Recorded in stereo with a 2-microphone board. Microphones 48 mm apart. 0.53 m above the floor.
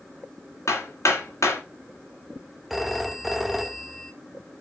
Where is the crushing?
No crushing in this recording.